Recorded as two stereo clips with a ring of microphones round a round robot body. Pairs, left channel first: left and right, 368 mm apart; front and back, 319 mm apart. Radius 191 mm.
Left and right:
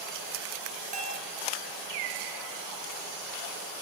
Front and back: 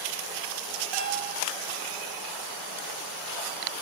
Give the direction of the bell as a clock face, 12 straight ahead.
5 o'clock.